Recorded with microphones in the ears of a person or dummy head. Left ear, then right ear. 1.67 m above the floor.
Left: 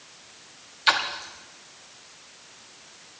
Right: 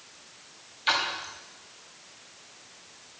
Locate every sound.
0.9 s a splash: 25° left (ahead or behind), 1.3 m